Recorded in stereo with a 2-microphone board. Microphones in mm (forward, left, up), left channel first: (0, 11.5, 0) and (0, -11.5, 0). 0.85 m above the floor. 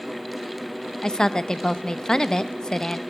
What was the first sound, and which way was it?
A woman speaking, 30° left (ahead or behind).